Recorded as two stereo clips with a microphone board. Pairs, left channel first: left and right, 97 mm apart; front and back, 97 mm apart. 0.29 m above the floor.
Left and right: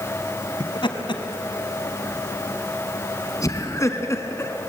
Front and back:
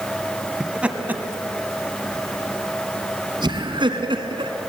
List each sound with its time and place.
0.6 s laughter: 100° left, 1.7 m; by 4.5 s 155° left, 3 m